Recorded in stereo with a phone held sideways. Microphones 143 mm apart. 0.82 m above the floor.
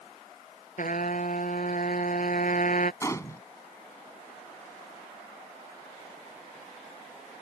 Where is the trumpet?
65° left (ahead or behind).